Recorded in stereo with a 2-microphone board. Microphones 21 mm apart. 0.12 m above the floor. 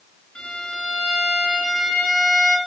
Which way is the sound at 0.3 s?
65° left (ahead or behind).